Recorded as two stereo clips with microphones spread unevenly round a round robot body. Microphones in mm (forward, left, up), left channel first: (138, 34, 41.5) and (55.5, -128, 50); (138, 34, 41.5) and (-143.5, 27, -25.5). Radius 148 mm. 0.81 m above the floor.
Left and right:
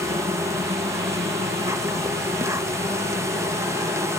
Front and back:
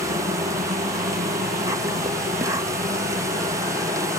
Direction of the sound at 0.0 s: 175° right.